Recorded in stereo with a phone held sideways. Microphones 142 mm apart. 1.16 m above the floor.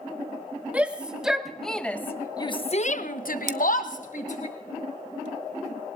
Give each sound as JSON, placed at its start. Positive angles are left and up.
{"t": 0.7, "sound": "a shout", "side_deg": -10, "distance_m": 2.0}
{"t": 3.5, "sound": "scissors", "side_deg": -60, "distance_m": 0.7}